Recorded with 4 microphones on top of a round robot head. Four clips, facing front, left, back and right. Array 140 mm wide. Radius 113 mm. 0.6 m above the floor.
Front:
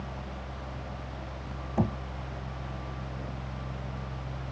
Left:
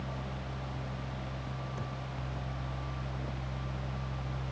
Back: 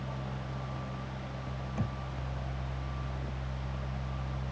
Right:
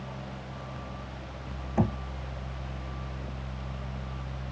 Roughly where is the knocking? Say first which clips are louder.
Right 13 dB, front 10 dB; ahead right.